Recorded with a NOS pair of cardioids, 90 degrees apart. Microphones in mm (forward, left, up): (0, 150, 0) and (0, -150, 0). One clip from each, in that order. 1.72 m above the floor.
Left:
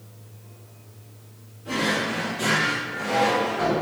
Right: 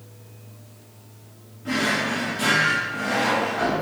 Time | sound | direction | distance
1.6 | a drawer | 55° right | 2.5 m